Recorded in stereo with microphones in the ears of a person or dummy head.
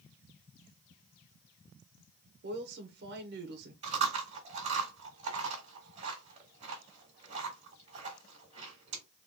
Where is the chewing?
35° right (ahead or behind), 1.6 m.